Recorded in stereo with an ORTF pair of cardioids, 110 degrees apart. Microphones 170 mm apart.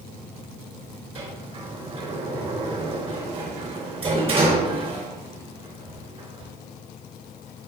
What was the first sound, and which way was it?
A sliding door, 35° right.